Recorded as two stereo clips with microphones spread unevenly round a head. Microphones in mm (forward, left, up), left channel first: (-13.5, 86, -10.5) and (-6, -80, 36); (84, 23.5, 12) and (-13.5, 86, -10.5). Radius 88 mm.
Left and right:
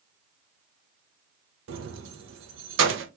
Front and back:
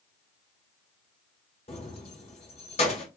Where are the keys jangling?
85° right, 0.8 m.